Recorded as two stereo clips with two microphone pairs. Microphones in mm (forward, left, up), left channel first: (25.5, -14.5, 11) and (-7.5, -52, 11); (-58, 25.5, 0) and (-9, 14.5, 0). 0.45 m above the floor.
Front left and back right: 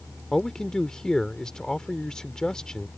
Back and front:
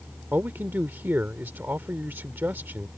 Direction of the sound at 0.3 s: 25° right.